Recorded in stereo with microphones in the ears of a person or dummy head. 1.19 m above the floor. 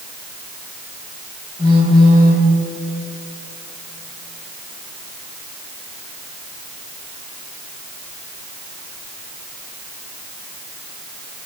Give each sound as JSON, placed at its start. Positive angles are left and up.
{"t": 1.6, "sound": "a phone buzzing", "side_deg": -25, "distance_m": 3.0}